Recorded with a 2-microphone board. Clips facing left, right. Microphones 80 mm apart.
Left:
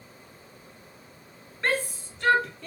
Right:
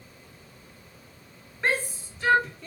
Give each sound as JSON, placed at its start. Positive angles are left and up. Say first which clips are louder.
{"t": 1.6, "sound": "a shout", "louder": "even", "side_deg": -10, "distance_m": 2.5}